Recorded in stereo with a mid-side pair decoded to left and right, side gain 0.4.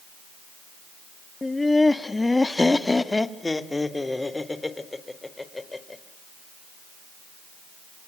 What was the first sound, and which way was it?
Laughter, 20° left.